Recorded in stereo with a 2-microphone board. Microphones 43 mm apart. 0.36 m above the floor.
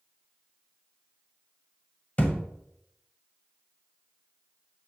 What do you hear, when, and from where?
2.2 s a thud: 35° left (ahead or behind), 0.7 m